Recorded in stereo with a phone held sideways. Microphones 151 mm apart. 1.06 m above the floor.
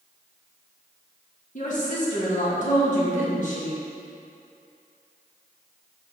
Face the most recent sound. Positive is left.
turn(degrees=60)  # may be behind; listen again after turning